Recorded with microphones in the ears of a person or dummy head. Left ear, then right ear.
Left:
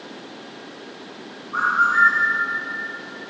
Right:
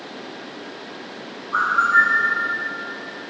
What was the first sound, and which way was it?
A bird, 45° right (ahead or behind).